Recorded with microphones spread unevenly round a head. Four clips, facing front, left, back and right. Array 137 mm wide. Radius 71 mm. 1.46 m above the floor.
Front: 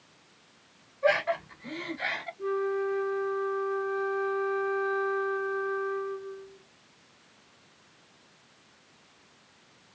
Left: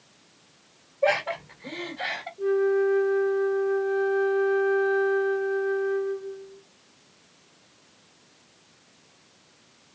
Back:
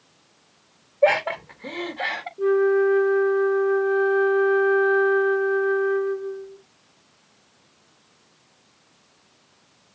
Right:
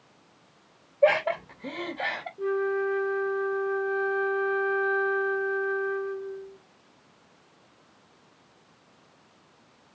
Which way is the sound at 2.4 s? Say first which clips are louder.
Left 5 dB, back 11 dB; 170° right.